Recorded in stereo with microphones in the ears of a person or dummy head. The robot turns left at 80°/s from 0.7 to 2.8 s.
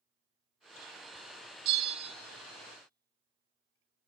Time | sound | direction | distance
1.6 | a bell | 50° right | 0.9 m